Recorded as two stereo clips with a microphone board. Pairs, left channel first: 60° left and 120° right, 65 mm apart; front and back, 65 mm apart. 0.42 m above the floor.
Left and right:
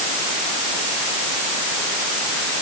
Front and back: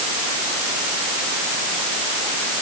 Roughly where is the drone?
I don't hear a drone.